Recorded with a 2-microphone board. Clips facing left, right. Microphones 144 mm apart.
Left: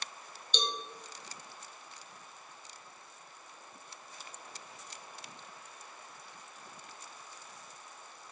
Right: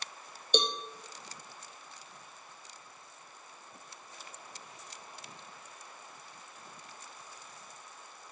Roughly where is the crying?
No crying in this recording.